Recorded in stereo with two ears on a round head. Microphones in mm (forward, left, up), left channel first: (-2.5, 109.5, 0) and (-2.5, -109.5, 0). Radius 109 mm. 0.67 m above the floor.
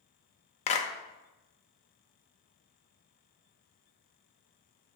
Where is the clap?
25° left (ahead or behind), 0.6 m.